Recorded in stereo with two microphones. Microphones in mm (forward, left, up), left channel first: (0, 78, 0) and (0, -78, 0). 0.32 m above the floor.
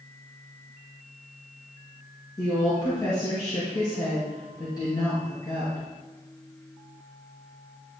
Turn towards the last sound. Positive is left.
turn(degrees=25)  # may be behind; listen again after turning